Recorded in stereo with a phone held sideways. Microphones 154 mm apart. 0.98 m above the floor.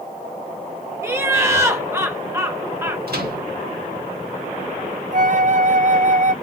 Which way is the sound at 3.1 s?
85° right.